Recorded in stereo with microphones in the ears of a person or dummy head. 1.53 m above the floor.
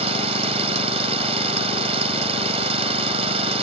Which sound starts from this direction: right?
An engine running, at 0.0 s.